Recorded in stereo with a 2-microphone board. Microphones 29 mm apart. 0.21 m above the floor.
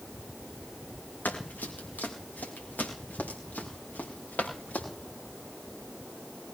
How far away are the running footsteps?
About 5.5 m.